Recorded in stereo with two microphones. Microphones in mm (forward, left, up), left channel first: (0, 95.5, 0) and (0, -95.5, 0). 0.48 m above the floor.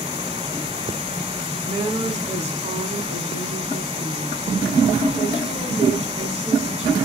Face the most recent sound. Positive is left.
turn(degrees=-35)  # may be behind; listen again after turning